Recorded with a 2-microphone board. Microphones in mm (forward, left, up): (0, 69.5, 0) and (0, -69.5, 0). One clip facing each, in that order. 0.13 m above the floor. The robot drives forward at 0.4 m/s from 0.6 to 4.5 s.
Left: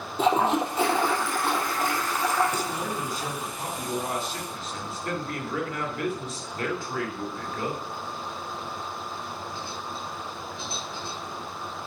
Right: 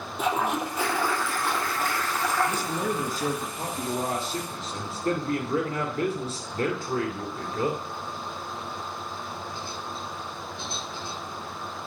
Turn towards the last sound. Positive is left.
turn(degrees=-35)  # may be behind; listen again after turning